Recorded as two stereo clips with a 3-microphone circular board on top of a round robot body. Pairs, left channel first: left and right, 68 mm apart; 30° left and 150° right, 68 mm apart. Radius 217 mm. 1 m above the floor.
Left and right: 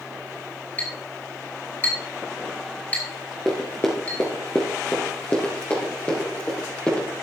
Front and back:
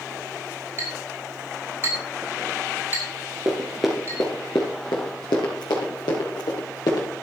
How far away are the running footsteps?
About 1.0 m.